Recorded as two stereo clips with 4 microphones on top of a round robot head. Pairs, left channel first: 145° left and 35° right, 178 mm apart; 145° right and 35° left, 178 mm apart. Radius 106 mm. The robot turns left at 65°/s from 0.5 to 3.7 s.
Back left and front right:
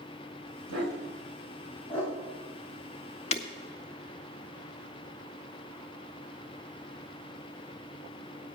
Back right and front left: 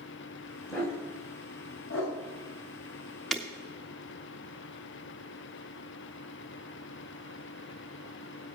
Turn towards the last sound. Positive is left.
turn(degrees=105)